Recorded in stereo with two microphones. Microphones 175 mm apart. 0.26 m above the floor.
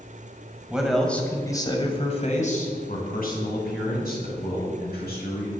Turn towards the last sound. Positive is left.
turn(degrees=65)  # may be behind; listen again after turning